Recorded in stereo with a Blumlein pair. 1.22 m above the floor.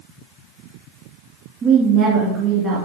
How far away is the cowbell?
I don't hear a cowbell.